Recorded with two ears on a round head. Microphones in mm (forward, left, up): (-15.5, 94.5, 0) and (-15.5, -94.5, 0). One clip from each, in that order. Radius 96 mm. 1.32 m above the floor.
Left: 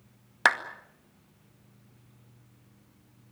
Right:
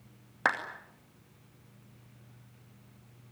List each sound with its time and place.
0.5 s a clap: 85° left, 2 m